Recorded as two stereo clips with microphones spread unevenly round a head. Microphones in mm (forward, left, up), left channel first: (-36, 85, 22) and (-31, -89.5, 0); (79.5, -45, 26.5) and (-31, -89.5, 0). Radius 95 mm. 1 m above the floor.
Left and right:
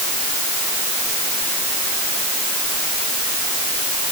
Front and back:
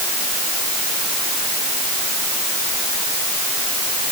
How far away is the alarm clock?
I don't hear an alarm clock.